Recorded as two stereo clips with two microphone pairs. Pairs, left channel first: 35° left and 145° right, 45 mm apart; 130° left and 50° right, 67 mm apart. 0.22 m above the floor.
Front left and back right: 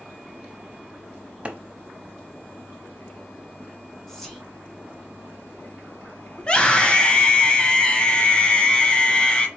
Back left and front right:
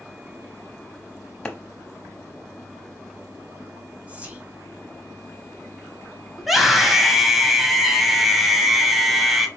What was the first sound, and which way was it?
A clap, 170° right.